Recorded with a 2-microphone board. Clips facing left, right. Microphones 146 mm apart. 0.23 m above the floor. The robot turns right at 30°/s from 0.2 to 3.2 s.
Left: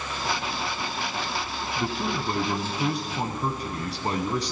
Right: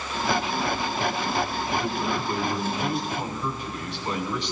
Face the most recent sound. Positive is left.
turn(degrees=125)